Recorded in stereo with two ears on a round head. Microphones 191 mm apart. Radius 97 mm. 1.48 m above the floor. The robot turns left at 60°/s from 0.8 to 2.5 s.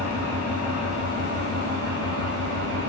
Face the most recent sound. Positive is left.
turn(degrees=-110)